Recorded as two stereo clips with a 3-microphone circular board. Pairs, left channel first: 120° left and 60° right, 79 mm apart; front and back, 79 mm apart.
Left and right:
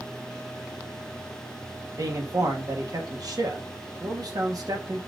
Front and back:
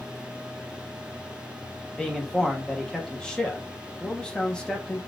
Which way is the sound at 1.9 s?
80° right.